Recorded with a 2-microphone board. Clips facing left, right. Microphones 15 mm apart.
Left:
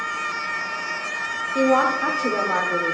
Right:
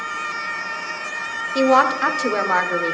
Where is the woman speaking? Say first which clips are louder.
Right 3 dB; 65° right (ahead or behind), 0.6 m.